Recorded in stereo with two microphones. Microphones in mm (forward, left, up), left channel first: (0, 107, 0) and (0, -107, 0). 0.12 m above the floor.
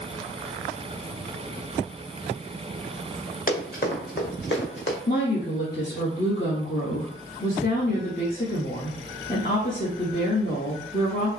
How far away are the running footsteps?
About 2 m.